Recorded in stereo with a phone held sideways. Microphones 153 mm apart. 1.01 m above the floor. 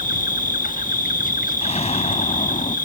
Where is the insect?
65° left (ahead or behind).